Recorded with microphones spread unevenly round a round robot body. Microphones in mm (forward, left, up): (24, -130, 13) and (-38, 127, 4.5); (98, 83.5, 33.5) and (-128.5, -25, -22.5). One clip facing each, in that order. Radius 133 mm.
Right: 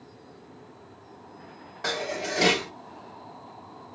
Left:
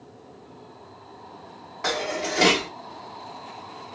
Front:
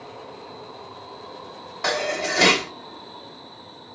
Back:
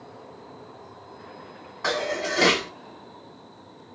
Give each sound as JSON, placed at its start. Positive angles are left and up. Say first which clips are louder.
{"t": 1.8, "sound": "dishes clattering", "louder": "left 3 dB, front 1 dB", "azimuth_deg": 20, "distance_m": 2.5}